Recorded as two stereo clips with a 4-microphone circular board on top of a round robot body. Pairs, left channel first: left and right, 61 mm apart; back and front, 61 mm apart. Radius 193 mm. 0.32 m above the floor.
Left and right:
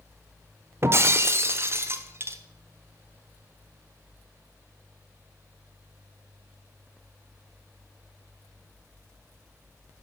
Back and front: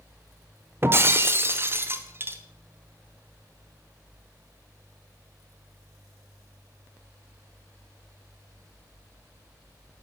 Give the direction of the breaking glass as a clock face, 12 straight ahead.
2 o'clock.